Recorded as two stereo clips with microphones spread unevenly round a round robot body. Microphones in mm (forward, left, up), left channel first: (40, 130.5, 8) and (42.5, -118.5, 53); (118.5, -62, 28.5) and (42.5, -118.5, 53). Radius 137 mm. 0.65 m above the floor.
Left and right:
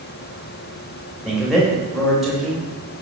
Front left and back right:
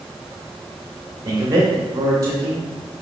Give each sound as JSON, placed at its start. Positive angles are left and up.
{"t": 1.2, "sound": "a man speaking", "azimuth_deg": 165, "distance_m": 0.8}